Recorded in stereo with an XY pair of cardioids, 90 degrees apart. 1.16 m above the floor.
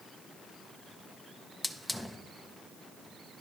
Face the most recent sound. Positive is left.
turn(degrees=5)